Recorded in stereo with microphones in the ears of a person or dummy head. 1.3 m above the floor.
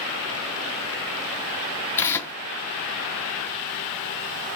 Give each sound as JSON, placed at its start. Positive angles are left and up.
{"t": 2.0, "sound": "tearing paper", "side_deg": 15, "distance_m": 0.6}